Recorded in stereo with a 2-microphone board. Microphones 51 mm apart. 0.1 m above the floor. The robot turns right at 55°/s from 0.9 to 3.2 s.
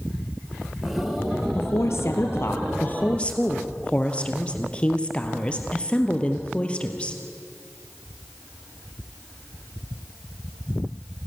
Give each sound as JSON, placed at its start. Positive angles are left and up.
{"t": 1.6, "sound": "a woman speaking", "azimuth_deg": 65, "distance_m": 2.5}